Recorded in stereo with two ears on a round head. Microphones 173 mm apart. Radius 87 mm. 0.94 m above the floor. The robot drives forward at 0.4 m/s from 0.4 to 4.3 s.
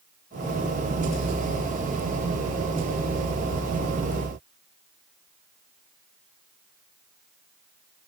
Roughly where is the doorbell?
I don't hear a doorbell.